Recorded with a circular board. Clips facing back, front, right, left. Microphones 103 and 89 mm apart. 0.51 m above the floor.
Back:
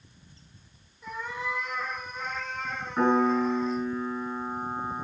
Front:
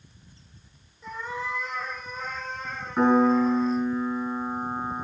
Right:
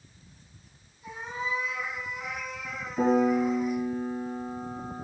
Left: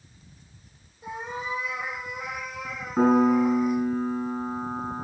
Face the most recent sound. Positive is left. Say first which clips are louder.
# front 4 dB, left 4 dB
turn(degrees=85)